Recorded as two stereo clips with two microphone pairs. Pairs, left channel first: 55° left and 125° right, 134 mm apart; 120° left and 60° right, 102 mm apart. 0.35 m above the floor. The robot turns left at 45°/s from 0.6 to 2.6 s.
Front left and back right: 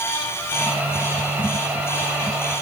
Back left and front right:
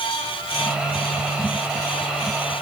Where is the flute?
No flute in this recording.